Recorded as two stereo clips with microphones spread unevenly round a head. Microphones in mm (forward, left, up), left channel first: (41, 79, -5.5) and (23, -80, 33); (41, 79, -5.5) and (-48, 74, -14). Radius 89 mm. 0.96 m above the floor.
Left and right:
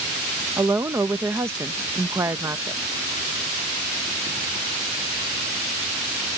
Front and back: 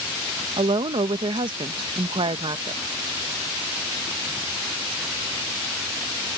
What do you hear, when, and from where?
0.6 s a woman speaking: straight behind